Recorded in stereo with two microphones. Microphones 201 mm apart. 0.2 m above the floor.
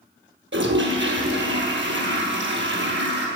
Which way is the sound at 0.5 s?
70° right (ahead or behind).